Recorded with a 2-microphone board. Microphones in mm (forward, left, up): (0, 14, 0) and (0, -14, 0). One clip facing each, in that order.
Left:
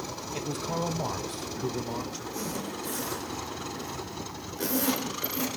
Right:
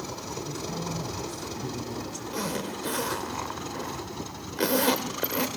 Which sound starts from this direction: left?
A man speaking, at 0.3 s.